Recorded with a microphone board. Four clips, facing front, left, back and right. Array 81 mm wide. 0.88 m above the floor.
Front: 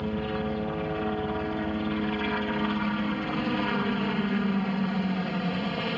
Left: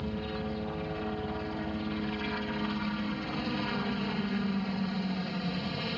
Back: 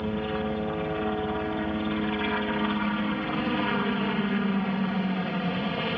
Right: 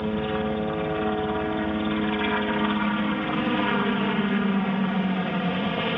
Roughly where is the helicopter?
Right.